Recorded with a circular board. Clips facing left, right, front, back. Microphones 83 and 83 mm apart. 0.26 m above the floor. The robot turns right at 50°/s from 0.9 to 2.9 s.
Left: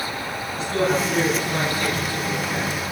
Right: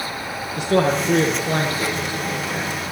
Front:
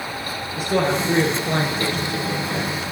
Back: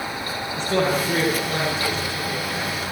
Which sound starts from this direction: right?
A man speaking, at 0.6 s.